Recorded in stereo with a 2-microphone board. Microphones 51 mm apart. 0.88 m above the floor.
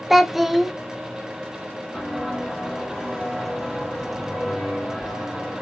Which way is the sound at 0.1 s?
5° right (ahead or behind).